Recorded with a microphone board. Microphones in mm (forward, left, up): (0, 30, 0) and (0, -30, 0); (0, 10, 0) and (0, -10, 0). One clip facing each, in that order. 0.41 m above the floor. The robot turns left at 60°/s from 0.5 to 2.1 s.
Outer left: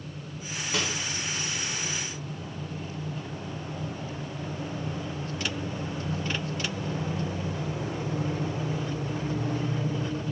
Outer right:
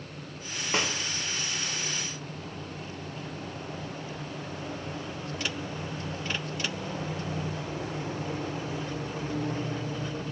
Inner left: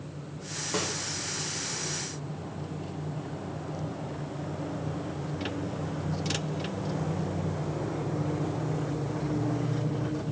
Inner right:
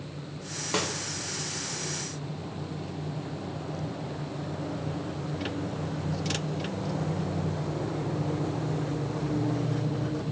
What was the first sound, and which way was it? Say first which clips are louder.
A snare drum: outer right 2 dB, inner right 2 dB; 35° right (ahead or behind).